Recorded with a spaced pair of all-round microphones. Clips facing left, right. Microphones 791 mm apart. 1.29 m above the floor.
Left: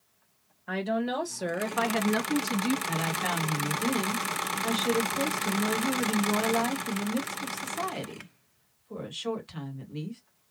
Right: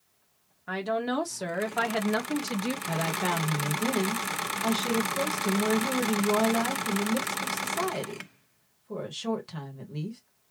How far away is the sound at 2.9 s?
About 1.7 m.